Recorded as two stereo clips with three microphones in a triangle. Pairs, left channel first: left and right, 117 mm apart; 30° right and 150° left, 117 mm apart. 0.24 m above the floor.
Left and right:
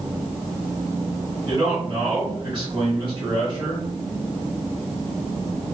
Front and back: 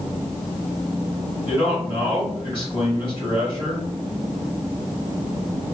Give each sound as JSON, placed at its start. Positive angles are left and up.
{"t": 1.4, "sound": "a man speaking", "azimuth_deg": -55, "distance_m": 1.8}